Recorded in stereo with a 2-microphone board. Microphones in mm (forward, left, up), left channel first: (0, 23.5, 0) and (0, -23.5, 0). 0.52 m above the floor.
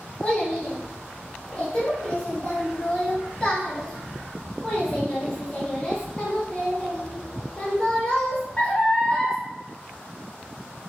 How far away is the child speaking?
About 0.9 m.